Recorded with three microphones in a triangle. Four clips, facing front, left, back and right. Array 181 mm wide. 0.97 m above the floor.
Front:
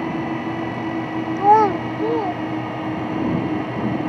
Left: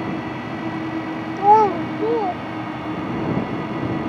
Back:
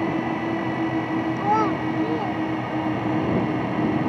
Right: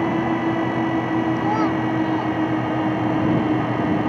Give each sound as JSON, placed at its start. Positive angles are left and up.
{"t": 1.4, "sound": "a child speaking", "azimuth_deg": 45}